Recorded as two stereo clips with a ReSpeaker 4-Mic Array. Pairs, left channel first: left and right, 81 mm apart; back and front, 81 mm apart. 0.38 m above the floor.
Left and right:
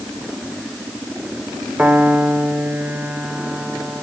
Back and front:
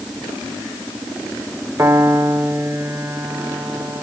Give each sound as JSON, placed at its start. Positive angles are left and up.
{"t": 1.8, "sound": "a piano", "azimuth_deg": -30, "distance_m": 1.7}